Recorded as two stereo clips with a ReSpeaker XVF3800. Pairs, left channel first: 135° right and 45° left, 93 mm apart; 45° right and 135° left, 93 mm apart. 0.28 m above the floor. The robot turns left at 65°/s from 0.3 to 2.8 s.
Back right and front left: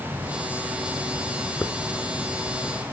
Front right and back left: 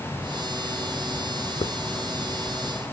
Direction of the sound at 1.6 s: 60° right.